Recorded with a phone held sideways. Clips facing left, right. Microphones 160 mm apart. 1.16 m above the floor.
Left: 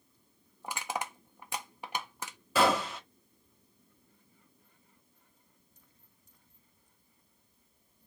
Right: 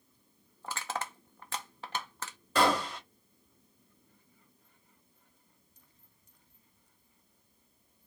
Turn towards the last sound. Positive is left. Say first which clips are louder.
# left 1 dB
turn(degrees=5)  # may be behind; listen again after turning